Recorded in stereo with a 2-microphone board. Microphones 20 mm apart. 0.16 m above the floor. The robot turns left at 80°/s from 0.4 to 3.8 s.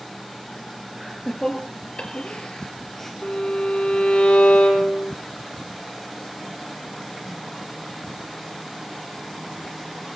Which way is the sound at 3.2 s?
145° left.